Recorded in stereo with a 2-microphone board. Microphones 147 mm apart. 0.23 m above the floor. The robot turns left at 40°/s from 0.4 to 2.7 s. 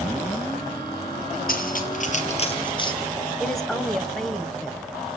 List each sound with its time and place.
1.5 s cutlery clinking: 75° left (ahead or behind), 3 m; by 2.9 s 35° left (ahead or behind), 3 m
3.4 s a woman speaking: centre (ahead or behind), 1.1 m